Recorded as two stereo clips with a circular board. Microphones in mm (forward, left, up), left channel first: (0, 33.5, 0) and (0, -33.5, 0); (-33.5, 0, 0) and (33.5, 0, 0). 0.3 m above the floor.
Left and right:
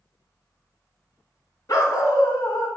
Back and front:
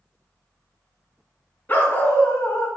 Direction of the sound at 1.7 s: 115° left.